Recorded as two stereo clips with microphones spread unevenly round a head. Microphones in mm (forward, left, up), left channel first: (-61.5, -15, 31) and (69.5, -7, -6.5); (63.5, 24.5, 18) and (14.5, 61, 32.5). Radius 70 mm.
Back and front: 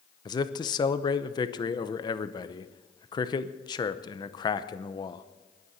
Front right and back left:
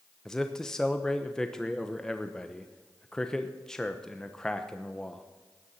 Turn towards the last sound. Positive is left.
turn(degrees=-110)